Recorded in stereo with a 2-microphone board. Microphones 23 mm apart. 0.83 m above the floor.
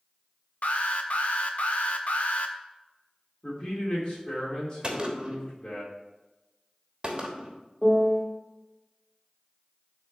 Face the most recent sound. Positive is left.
turn(degrees=-10)  # may be behind; listen again after turning